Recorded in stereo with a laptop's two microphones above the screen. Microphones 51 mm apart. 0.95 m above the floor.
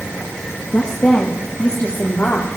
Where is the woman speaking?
25° left (ahead or behind), 1.2 m; by 2.5 s 50° left (ahead or behind), 2 m.